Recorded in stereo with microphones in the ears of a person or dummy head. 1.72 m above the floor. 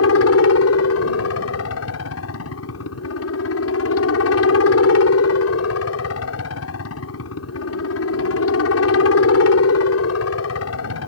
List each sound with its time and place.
0.0 s a helicopter: 75° left (ahead or behind)